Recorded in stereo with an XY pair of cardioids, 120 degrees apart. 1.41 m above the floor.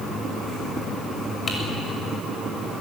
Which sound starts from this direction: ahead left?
Typing on a keyboard, at 1.5 s.